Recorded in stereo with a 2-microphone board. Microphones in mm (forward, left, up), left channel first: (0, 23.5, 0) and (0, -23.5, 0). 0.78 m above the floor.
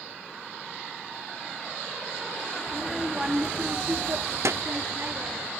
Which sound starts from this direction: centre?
A child speaking, at 2.7 s.